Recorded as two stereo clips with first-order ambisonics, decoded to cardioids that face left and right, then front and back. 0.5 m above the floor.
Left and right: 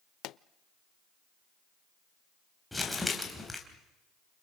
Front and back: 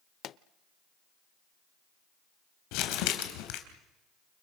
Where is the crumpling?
5° left, 3.5 m.